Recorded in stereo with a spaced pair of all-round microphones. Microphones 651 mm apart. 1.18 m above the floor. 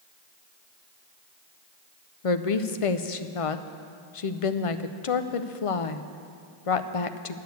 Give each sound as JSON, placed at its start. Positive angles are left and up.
{"t": 2.2, "sound": "a woman speaking", "side_deg": 55, "distance_m": 0.7}